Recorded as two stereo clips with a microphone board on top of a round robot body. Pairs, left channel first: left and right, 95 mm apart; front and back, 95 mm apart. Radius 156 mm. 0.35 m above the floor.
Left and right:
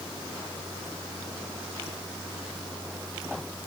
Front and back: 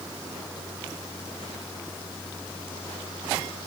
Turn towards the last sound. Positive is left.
No sound to turn to.